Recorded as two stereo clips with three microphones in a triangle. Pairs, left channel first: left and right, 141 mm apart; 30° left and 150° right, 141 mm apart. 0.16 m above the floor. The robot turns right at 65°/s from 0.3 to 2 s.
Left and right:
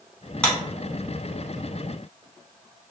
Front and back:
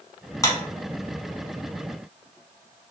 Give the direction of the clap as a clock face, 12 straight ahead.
11 o'clock.